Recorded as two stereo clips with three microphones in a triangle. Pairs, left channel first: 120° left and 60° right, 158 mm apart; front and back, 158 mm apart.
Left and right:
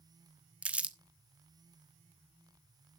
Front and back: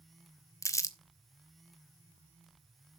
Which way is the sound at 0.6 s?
5° left.